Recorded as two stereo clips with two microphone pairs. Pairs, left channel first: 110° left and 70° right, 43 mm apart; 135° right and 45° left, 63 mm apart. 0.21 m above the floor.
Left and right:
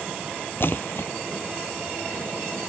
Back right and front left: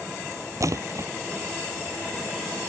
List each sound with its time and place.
0.6 s a splash: 80° left